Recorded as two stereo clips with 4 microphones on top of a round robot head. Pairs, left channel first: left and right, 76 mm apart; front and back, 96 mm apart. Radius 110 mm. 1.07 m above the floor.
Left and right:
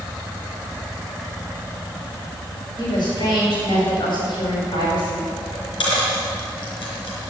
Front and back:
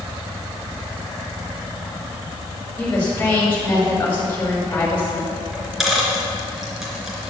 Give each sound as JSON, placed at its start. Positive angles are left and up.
{"t": 2.8, "sound": "a woman speaking", "azimuth_deg": 70, "distance_m": 5.0}
{"t": 5.5, "sound": "a dropped coin", "azimuth_deg": 90, "distance_m": 3.5}